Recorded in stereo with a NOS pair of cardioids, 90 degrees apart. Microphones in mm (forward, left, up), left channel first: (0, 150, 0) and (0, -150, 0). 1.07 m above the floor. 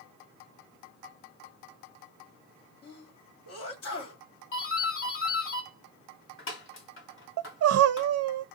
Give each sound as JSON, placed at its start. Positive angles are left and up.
{"t": 2.8, "sound": "a sneeze", "azimuth_deg": 50, "distance_m": 2.0}
{"t": 4.5, "sound": "a doorbell", "azimuth_deg": 45, "distance_m": 2.0}
{"t": 7.4, "sound": "crying", "azimuth_deg": -55, "distance_m": 0.6}